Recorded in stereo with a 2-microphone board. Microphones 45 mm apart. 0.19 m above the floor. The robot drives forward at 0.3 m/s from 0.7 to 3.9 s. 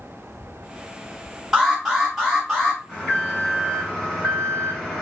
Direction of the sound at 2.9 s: 5° left (ahead or behind).